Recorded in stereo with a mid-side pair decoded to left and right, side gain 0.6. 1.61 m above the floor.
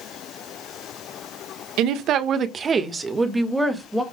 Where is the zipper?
No zipper in this recording.